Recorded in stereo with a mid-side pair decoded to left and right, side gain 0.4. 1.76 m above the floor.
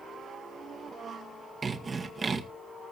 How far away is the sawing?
About 1.8 m.